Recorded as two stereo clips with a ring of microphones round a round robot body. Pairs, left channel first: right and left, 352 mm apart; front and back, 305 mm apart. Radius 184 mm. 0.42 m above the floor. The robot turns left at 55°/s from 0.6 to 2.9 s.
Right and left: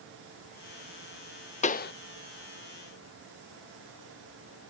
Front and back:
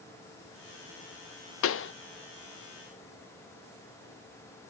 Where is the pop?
25° right, 0.6 m; by 1.9 s 40° right, 0.6 m.